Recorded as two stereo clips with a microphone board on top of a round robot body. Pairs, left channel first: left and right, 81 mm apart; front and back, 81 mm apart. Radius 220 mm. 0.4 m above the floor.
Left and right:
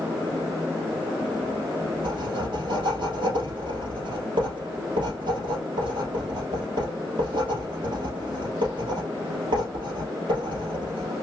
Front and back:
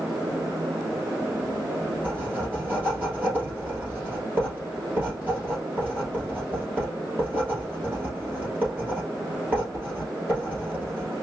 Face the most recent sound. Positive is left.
turn(degrees=-115)